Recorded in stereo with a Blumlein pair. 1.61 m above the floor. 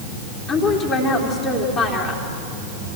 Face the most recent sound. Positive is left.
turn(degrees=20)